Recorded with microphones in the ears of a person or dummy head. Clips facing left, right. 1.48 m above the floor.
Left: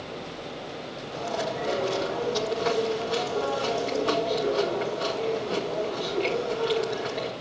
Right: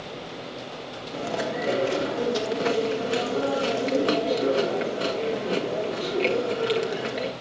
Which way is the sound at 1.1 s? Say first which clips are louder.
Right 2 dB; 35° right (ahead or behind).